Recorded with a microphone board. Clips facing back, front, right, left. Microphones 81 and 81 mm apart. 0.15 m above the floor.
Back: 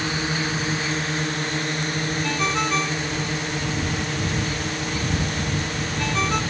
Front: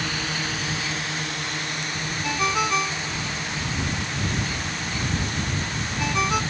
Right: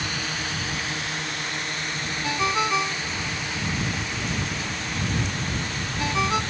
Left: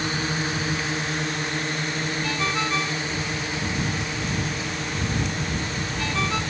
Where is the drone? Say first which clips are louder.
Back 3 dB, left 4 dB; 130° left; by 6.5 s 155° left.